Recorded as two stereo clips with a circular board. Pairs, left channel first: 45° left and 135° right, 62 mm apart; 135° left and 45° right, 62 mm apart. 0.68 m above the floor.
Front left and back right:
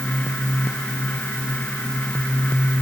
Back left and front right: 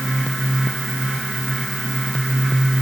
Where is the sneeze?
No sneeze in this recording.